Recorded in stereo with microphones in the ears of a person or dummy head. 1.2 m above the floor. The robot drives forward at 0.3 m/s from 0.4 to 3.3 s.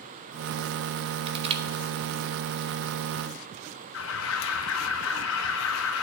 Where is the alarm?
70° left (ahead or behind), 1.0 m.